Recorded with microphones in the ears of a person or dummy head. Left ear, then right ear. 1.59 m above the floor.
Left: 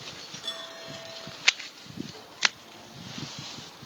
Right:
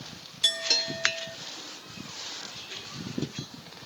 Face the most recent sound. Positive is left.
turn(degrees=-40)  # may be behind; listen again after turning